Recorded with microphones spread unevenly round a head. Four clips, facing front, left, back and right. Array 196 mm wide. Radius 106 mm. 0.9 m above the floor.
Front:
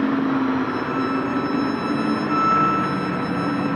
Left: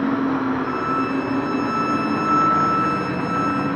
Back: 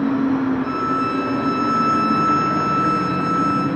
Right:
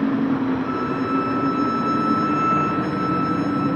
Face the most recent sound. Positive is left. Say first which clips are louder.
# left 1 dB, back 2 dB
turn(degrees=125)